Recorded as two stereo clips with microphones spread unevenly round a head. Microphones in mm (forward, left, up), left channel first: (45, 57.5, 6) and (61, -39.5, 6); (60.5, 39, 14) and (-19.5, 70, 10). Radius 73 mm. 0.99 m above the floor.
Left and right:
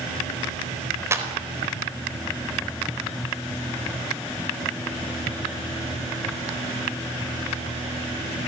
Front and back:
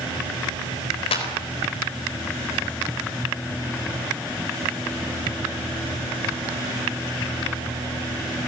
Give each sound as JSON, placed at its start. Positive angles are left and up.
{"t": 1.1, "sound": "a clap", "azimuth_deg": -20, "distance_m": 4.0}